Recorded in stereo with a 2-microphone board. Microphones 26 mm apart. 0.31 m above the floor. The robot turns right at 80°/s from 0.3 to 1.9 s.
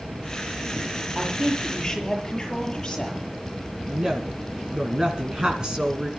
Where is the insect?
115° right, 9.5 m; by 6.2 s 10° left, 9.5 m.